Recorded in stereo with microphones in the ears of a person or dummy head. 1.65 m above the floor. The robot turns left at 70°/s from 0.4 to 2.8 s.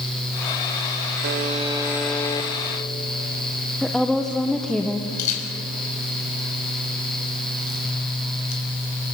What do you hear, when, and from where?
1.2 s a buzzer: 115° right, 1.2 m; by 2.5 s 155° left, 1.2 m
3.8 s a woman speaking: 5° right (ahead or behind), 1.1 m
5.2 s a camera shutter: 40° left (ahead or behind), 5.5 m